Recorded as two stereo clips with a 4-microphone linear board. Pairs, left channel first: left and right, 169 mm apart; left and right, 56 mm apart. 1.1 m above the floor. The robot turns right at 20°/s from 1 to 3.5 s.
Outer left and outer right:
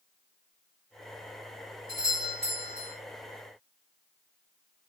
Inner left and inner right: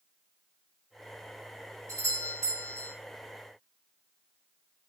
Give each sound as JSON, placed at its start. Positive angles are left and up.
{"t": 1.9, "sound": "a doorbell", "side_deg": -60, "distance_m": 5.5}